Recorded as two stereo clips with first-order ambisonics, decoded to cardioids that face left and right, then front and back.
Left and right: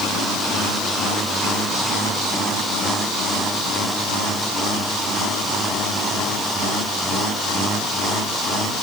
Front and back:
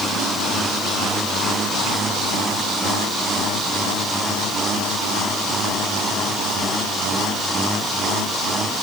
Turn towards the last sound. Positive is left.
No sound to turn to.